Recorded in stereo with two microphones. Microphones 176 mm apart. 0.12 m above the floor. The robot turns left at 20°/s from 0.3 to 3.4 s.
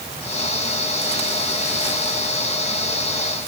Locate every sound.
Only background noise.